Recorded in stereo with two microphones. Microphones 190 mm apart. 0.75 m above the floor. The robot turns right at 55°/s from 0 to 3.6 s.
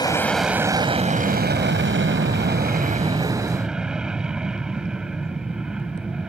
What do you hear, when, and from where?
0.0 s an aircraft: 160° left; by 6.3 s 5° right